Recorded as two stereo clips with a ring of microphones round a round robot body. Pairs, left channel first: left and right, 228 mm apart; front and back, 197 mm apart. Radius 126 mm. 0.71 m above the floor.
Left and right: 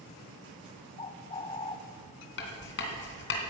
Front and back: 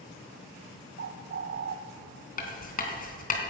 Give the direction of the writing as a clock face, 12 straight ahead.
10 o'clock.